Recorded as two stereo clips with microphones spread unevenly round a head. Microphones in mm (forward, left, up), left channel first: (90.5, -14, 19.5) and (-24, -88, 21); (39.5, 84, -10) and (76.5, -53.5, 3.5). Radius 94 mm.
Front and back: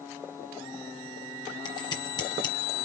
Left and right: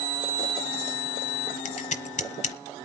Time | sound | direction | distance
1.6 | scissors | 90° left | 1.1 m